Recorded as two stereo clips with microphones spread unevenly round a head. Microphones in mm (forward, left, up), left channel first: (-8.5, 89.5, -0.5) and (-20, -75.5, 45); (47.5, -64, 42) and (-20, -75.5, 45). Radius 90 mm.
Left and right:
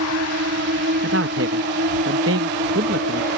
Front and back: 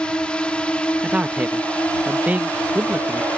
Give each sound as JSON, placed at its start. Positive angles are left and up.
{"t": 0.0, "sound": "a drone", "azimuth_deg": -65}
{"t": 1.0, "sound": "a man speaking", "azimuth_deg": -100}